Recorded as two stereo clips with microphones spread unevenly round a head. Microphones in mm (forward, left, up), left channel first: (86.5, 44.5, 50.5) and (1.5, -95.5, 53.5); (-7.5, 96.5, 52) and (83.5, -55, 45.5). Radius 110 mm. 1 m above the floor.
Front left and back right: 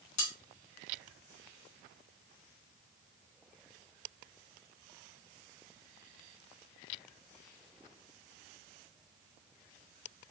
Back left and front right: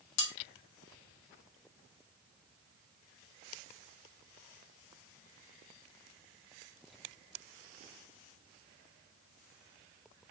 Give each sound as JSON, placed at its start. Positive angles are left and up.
{"t": 0.2, "sound": "cutlery clinking", "azimuth_deg": 115, "distance_m": 1.3}